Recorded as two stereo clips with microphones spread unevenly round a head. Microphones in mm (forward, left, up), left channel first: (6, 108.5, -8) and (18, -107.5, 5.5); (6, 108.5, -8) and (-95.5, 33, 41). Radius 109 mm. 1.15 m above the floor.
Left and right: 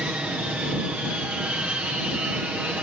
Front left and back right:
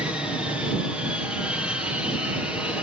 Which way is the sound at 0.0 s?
10° right.